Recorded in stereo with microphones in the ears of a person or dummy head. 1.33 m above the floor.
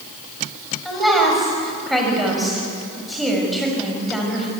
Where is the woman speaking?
5° left (ahead or behind), 6.5 m.